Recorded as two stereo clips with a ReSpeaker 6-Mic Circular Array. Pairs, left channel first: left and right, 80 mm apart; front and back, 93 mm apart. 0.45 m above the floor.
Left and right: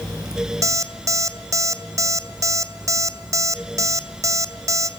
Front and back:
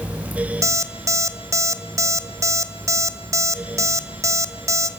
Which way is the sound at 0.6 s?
130° right.